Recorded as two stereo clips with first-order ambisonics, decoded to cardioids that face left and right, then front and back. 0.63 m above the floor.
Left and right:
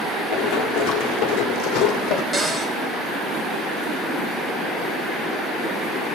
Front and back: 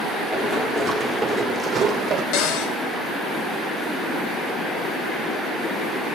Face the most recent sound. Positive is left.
turn(degrees=-5)